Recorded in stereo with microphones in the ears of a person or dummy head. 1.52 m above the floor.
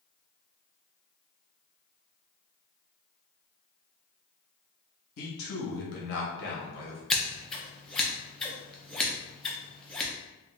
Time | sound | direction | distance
5.2 | a man speaking | 65° left (ahead or behind) | 1.0 m
7.1 | scissors | centre (ahead or behind) | 0.7 m